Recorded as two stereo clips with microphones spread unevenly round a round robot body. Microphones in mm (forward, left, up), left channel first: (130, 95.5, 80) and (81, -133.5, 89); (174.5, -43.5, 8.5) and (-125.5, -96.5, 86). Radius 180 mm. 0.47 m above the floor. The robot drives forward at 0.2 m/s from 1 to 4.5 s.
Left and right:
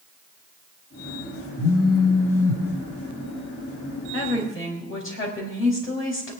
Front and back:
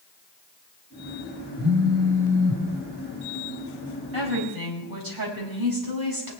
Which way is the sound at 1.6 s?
110° left.